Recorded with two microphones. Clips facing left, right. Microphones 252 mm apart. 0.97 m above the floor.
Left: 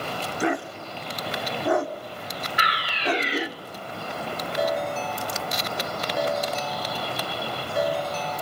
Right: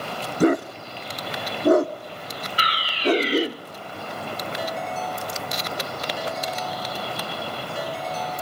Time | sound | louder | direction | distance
0.4 | a dog barking | right 9 dB | 45° right (ahead or behind) | 0.8 m
2.6 | a fire alarm | right 4 dB | 35° right (ahead or behind) | 1.5 m
4.6 | a ringtone | left 8 dB | 65° left (ahead or behind) | 2 m